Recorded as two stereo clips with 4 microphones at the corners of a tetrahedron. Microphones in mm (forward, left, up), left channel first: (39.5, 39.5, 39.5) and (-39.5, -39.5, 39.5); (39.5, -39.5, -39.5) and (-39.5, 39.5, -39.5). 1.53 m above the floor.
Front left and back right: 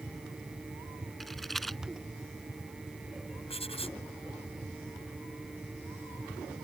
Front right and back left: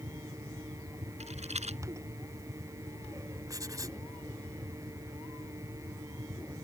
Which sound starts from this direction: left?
Writing, at 3.5 s.